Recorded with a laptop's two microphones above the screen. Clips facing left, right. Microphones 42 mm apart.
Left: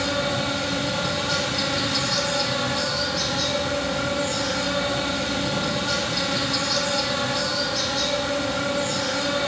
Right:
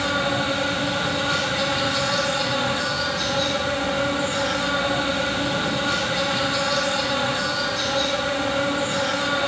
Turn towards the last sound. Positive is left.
turn(degrees=-35)  # may be behind; listen again after turning